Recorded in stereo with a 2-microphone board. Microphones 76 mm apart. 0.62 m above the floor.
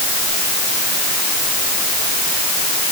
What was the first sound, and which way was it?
Only background noise.